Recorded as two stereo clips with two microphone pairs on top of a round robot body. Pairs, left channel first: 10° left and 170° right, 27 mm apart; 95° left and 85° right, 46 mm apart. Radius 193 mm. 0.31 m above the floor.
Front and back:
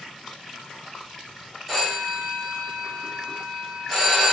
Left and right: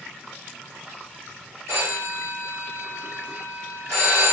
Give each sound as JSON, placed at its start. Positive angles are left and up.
{"t": 1.7, "sound": "a phone ringing", "azimuth_deg": -85, "distance_m": 1.9}